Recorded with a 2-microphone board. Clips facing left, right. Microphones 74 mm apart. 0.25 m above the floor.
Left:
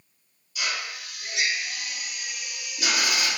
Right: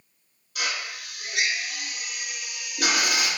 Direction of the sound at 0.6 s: 60° right (ahead or behind).